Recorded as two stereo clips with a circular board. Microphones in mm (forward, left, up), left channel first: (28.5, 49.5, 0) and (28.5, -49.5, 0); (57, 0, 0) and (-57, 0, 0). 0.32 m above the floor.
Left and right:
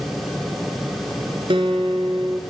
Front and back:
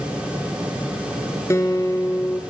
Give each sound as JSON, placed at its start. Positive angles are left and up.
{"t": 1.5, "sound": "a guitar", "azimuth_deg": -65, "distance_m": 1.0}